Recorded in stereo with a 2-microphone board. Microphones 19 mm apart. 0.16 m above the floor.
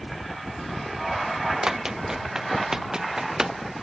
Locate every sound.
1.6 s running footsteps: 30° right (ahead or behind); by 3.6 s 35° right (ahead or behind)